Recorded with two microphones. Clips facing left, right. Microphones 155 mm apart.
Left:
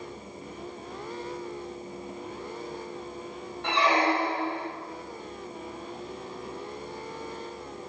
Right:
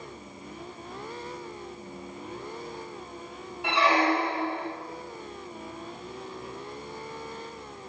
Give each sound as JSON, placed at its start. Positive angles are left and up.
{"t": 3.6, "sound": "a squeak", "side_deg": -10, "distance_m": 1.0}